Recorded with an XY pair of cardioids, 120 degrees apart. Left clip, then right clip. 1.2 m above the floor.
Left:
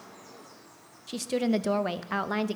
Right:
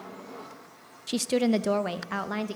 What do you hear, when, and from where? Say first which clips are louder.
1.1 s a woman speaking: right 3 dB; 40° right, 0.6 m; by 2.6 s 15° left, 1.4 m